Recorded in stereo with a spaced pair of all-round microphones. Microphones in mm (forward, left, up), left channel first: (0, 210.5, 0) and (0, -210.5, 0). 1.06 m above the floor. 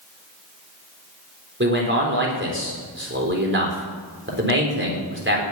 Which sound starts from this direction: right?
A man speaking, at 1.6 s.